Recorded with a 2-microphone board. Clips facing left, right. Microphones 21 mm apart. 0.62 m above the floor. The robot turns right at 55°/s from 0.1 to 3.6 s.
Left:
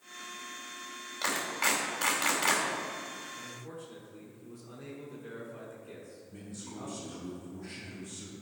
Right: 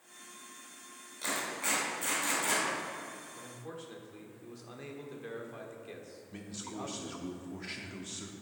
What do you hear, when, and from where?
1.2 s a clap: 45° left (ahead or behind), 2.5 m; by 2.6 s 55° left (ahead or behind), 2.5 m
3.4 s a man speaking: 45° right (ahead or behind), 1.5 m; by 7.2 s 35° right (ahead or behind), 1.5 m
6.3 s a man speaking: 45° right (ahead or behind), 0.9 m